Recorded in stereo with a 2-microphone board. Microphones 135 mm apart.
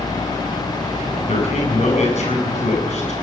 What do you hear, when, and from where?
1.3 s a man speaking: 55° left (ahead or behind), 7.5 m